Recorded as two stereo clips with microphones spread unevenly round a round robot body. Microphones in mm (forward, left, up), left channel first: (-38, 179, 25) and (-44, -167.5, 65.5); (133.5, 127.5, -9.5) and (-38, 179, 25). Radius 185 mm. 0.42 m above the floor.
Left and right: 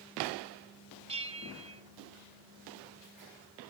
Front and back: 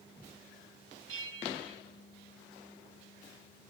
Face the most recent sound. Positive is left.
turn(degrees=-165)